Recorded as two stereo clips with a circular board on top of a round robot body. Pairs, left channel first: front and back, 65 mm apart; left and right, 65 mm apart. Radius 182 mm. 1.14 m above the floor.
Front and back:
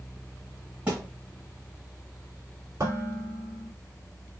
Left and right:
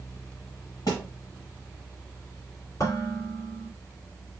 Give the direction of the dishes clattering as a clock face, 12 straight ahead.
7 o'clock.